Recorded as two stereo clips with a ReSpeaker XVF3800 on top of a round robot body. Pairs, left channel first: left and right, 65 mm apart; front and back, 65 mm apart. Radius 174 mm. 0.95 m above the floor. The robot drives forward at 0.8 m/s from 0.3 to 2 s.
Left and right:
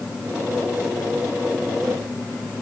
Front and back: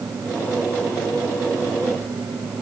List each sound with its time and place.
Only background noise.